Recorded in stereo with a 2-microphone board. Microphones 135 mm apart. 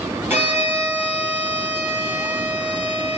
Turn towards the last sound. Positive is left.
turn(degrees=-15)  # may be behind; listen again after turning